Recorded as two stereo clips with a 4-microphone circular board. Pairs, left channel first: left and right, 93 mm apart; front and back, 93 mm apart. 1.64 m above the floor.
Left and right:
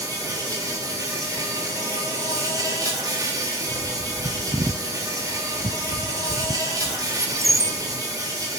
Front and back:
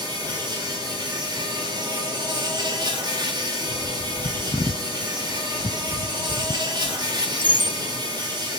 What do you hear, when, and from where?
0.0 s an insect: 140° right, 5.5 m
3.7 s a bird: 35° right, 0.7 m